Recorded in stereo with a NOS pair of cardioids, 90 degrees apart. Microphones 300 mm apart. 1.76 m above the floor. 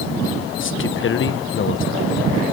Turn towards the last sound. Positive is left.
turn(degrees=40)